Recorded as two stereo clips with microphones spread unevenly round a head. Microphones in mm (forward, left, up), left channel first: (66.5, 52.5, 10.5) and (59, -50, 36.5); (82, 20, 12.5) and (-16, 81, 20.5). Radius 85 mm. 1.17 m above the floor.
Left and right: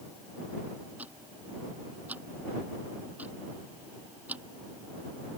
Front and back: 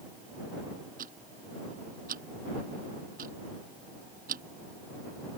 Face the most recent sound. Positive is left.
turn(degrees=-175)